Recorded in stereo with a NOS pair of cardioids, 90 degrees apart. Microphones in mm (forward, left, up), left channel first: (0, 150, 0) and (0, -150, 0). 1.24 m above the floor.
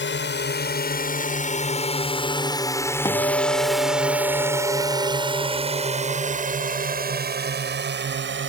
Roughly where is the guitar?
Ahead.